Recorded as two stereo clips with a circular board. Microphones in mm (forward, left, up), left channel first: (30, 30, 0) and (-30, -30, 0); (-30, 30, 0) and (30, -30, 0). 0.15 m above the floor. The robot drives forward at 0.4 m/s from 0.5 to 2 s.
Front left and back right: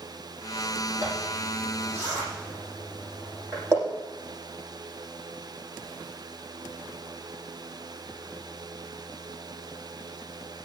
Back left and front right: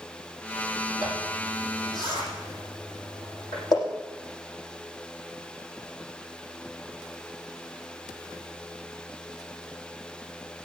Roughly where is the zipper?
Behind.